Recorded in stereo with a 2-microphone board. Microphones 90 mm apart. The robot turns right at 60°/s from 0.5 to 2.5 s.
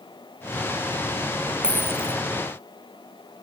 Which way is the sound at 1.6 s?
170° right.